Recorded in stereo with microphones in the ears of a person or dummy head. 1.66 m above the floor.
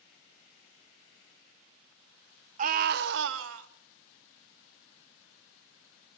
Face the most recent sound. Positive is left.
turn(degrees=-80)